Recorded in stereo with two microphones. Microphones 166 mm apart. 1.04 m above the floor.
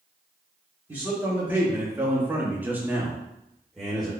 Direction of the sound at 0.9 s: 10° right (ahead or behind).